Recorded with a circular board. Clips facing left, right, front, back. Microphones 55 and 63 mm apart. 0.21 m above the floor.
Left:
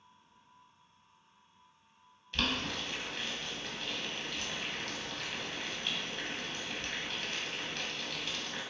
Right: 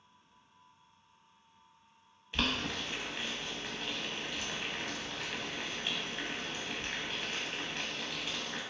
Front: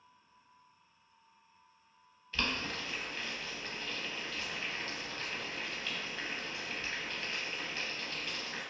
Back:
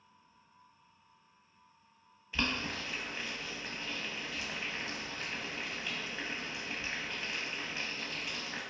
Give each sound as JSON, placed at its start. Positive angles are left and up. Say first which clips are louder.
{"t": 2.3, "sound": "boiling", "louder": "even, back 1 dB", "azimuth_deg": -130, "distance_m": 0.6}